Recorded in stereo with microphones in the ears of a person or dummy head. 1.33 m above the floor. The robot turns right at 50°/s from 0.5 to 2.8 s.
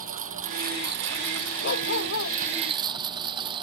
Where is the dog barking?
55° left; by 2.4 s 90° left.